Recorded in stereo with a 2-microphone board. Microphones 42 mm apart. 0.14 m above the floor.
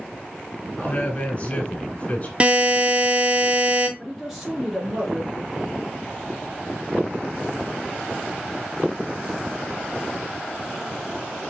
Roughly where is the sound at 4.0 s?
Centre.